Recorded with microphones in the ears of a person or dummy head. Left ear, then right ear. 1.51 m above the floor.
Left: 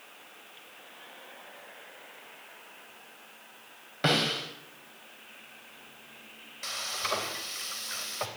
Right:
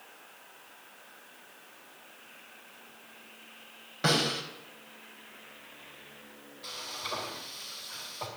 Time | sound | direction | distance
4.0 | a snare drum | 15° left (ahead or behind) | 4.5 m
6.6 | frying | 65° left (ahead or behind) | 3.5 m